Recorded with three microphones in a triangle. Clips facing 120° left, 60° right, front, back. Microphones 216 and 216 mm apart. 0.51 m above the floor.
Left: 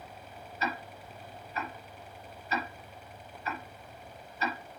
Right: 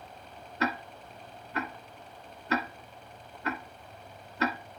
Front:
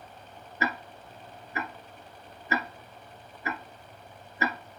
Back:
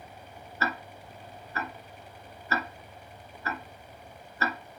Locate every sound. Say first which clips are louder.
0.6 s ticking: right 5 dB, front 2 dB; 75° right, 1.3 m